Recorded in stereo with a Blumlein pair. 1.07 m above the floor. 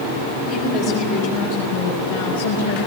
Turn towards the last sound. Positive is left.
turn(degrees=60)